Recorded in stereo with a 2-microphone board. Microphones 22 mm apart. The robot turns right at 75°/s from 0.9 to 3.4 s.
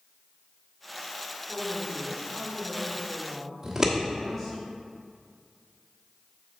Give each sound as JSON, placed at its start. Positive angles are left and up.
{"t": 1.5, "sound": "a woman speaking", "azimuth_deg": 30, "distance_m": 2.5}
{"t": 3.6, "sound": "scissors", "side_deg": -20, "distance_m": 1.2}